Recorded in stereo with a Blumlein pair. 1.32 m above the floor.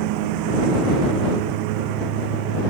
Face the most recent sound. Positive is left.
turn(degrees=-45)